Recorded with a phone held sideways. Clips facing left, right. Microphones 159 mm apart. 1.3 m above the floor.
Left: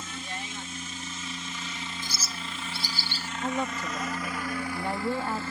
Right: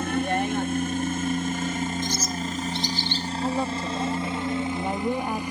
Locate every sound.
0.0 s a helicopter: 65° right (ahead or behind); by 5.5 s 15° right (ahead or behind)
2.0 s a bird: 10° left (ahead or behind)
3.4 s a woman speaking: 15° right (ahead or behind)